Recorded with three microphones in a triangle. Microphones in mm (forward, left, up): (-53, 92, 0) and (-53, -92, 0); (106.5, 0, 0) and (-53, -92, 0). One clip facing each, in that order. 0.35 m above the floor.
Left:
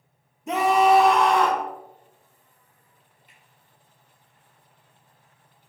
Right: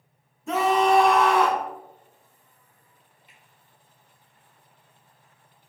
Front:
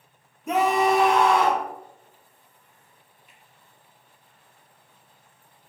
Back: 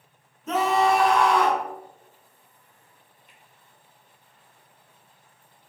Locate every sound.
0.5 s a scream: 80° left, 1.0 m; by 1.7 s 20° right, 1.2 m
3.3 s a finger snap: 105° left, 1.9 m